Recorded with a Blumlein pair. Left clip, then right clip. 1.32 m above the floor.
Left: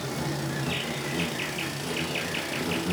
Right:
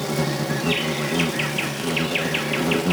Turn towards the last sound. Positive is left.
turn(degrees=-65)